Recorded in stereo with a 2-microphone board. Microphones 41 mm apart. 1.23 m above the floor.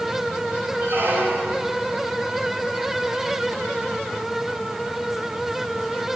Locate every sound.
0.8 s a squeak: 65° right (ahead or behind), 5 m